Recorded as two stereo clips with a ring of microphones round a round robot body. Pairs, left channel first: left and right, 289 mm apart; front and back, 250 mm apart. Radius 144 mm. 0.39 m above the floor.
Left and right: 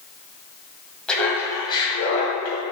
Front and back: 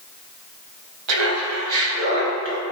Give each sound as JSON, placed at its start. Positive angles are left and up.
{"t": 1.1, "sound": "laughter", "azimuth_deg": 175, "distance_m": 1.9}